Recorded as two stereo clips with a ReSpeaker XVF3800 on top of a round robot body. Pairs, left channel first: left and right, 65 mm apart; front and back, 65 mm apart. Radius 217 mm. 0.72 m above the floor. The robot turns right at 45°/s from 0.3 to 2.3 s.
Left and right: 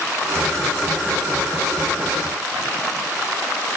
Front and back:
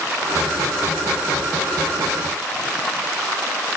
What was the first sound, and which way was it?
Only background noise.